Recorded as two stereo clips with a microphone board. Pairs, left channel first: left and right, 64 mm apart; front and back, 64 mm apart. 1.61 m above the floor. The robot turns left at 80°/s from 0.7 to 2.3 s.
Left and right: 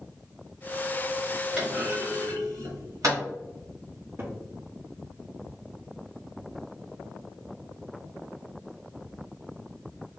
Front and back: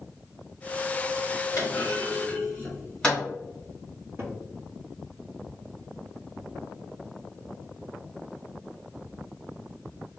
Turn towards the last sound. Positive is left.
turn(degrees=-135)